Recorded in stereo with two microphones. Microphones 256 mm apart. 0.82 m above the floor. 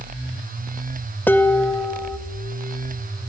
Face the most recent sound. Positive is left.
turn(degrees=5)  # may be behind; listen again after turning